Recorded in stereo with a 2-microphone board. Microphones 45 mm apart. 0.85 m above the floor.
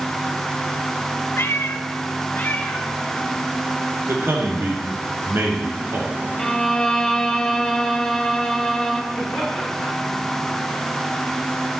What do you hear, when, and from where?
1.4 s a cat meowing: 60° left (ahead or behind), 0.6 m; by 4.0 s 30° left (ahead or behind), 1.9 m
4.1 s a man speaking: 70° right (ahead or behind), 1.9 m
6.4 s a violin: 10° left (ahead or behind), 0.6 m
9.1 s laughter: 15° left (ahead or behind), 4.5 m